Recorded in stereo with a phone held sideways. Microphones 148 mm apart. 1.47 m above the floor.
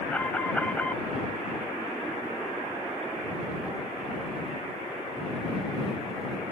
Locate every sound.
0.1 s an alarm: 10° left (ahead or behind)